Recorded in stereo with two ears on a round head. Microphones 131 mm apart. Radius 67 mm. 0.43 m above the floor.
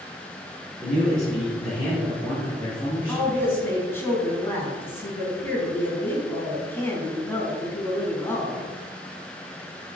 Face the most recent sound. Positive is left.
turn(degrees=15)  # may be behind; listen again after turning